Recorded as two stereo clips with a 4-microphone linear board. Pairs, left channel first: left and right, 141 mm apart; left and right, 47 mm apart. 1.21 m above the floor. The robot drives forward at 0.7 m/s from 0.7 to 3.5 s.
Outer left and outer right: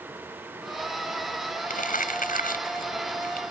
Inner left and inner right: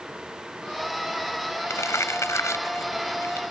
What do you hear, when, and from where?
1.7 s crumpling: 80° left; by 3.4 s 90° left